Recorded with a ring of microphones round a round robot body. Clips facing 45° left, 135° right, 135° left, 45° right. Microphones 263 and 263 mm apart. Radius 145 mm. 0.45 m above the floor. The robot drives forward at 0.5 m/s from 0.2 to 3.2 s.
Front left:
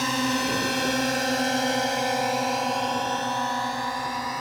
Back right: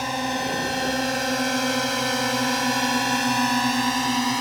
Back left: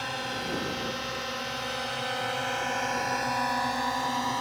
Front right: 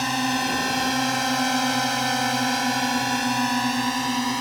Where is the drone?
25° right; by 4.4 s 95° right.